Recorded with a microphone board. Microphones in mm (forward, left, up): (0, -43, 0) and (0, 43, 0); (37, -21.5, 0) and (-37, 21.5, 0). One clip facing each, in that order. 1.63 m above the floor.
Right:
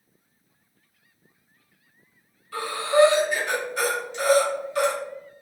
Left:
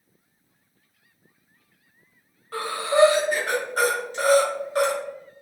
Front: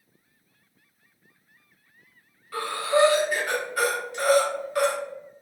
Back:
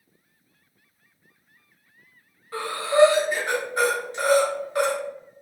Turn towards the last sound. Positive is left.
turn(degrees=100)